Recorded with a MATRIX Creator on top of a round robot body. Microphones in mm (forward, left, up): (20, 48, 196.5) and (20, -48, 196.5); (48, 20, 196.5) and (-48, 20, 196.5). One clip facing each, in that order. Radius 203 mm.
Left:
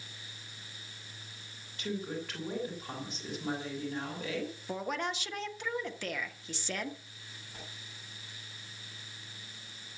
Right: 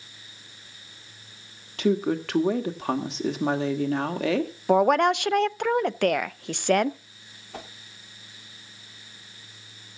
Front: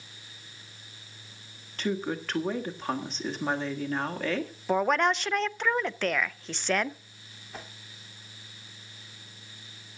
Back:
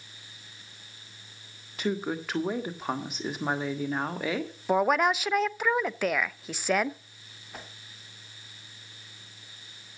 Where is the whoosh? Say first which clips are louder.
Right 11 dB, front 1 dB; 90° right, 2 m.